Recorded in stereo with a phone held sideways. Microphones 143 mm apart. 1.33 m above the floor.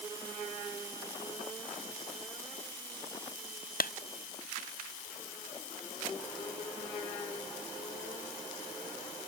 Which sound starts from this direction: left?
A clap, at 3.8 s.